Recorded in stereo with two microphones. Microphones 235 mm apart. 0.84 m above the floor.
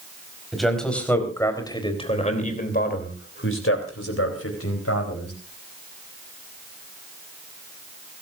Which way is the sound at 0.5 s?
Centre (ahead or behind).